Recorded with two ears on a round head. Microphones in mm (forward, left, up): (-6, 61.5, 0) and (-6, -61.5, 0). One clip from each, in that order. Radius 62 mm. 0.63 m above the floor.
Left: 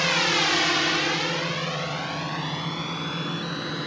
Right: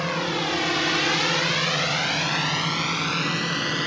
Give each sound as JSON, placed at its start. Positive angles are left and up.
{"t": 0.0, "sound": "a drone", "side_deg": 65}